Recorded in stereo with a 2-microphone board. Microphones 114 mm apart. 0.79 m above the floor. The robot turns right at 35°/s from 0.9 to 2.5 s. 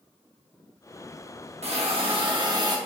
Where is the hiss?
70° right, 0.7 m; by 2.8 s 40° right, 0.7 m.